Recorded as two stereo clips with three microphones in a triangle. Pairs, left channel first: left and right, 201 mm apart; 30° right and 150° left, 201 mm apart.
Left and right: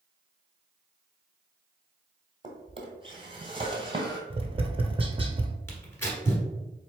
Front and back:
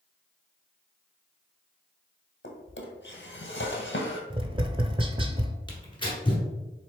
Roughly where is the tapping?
Behind right.